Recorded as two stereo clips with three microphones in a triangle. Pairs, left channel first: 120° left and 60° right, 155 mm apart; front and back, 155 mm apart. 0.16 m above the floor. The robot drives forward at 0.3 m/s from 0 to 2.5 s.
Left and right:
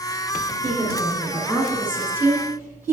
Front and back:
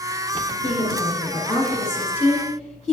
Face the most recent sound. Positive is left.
turn(degrees=80)